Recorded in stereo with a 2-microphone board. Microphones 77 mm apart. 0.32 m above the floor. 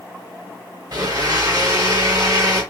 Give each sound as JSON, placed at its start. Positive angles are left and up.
{"t": 0.9, "sound": "a blender", "side_deg": -55, "distance_m": 3.0}